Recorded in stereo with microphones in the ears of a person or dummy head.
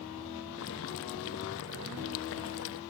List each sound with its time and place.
0.6 s boiling: 65° left (ahead or behind), 1.0 m